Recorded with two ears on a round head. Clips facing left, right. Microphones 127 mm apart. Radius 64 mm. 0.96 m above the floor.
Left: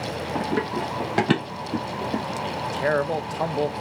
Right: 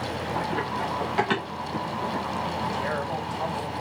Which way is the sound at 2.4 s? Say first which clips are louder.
Left 3 dB; 65° left (ahead or behind).